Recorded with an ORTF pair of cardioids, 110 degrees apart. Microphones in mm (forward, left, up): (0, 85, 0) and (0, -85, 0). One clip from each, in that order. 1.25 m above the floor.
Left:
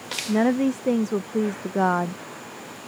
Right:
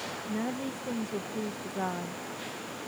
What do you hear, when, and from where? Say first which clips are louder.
0.3 s a woman speaking: left 16 dB; 60° left